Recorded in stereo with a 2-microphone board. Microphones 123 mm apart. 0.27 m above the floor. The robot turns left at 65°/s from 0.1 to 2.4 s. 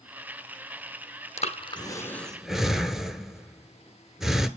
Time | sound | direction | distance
1.4 | breathing | 65° left (ahead or behind) | 0.9 m